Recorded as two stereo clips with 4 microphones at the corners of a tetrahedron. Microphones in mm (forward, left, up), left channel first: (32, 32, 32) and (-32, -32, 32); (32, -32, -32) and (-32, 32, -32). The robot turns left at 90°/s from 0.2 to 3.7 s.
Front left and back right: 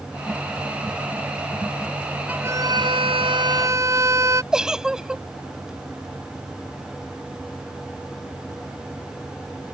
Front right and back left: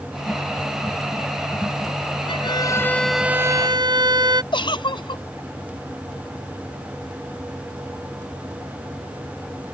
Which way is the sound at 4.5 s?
55° right.